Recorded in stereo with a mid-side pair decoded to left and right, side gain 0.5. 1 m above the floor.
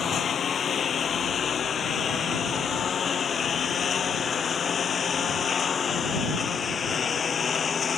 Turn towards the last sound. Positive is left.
turn(degrees=35)